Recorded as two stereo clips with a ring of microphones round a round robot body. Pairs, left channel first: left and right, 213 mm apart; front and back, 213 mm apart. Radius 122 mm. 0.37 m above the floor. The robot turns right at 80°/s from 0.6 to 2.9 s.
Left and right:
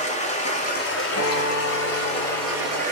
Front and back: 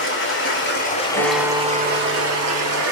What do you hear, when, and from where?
0.0 s running water: 30° left, 1.7 m; by 2.9 s 145° right, 1.7 m
1.2 s a guitar: 70° left, 2.5 m; by 2.8 s 155° right, 2.5 m